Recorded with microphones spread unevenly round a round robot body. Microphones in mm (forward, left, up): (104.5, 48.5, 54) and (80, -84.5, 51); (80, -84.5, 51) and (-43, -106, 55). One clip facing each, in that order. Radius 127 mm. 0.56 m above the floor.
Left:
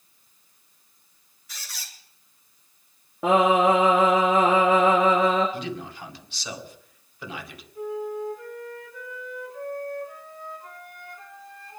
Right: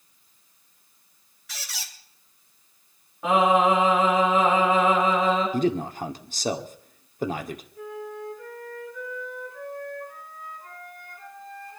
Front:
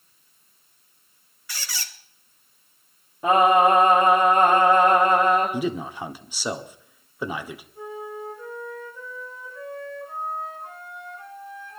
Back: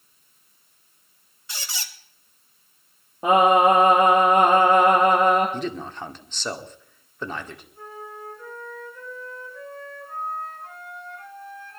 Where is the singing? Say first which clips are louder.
Left 1 dB, back 1 dB; 115° left, 8 m.